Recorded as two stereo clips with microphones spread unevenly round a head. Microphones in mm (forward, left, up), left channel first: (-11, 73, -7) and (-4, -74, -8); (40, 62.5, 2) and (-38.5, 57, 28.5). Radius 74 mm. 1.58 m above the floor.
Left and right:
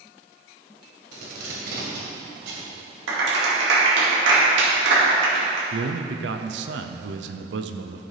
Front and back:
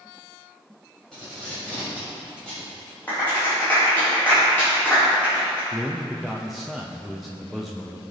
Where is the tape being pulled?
90° right, 3 m.